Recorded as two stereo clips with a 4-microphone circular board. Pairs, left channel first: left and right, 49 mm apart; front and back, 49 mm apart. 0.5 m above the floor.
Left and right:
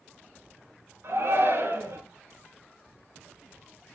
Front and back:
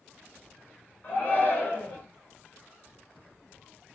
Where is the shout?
55° right, 8.5 m.